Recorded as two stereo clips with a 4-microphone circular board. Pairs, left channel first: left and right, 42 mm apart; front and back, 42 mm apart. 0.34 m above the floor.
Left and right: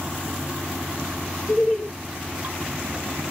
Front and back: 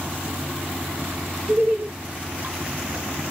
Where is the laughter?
140° left, 1.0 m.